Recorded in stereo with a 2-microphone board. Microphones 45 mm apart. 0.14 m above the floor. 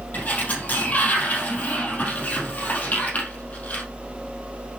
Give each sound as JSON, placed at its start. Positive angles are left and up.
{"t": 0.1, "sound": "a sliding door", "side_deg": 40, "distance_m": 3.5}